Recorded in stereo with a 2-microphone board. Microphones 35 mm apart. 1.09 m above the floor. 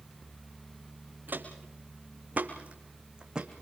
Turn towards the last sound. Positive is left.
turn(degrees=-15)  # may be behind; listen again after turning